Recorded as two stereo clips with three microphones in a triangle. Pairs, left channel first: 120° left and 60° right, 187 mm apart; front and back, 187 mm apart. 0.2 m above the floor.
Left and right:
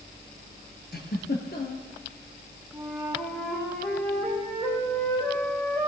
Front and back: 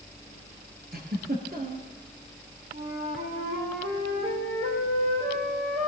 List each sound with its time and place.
0.9 s a giggle: 145° left, 2.5 m
2.7 s a flute: 160° right, 5 m